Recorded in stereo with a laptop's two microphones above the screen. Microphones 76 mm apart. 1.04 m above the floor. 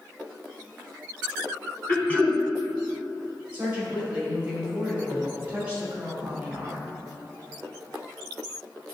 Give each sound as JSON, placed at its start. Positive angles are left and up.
{"t": 1.9, "sound": "throat clearing", "side_deg": 20, "distance_m": 1.3}
{"t": 3.5, "sound": "a woman speaking", "side_deg": -20, "distance_m": 2.5}